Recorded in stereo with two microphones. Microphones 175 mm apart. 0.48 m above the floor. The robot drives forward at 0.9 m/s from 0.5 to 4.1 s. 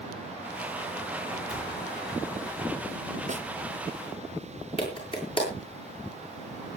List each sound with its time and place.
1.5 s a cupboard door: 20° left (ahead or behind), 9 m
3.3 s a snare drum: 40° right (ahead or behind), 0.8 m; by 3.5 s 35° right (ahead or behind), 0.9 m
4.8 s a clap: 30° left (ahead or behind), 8 m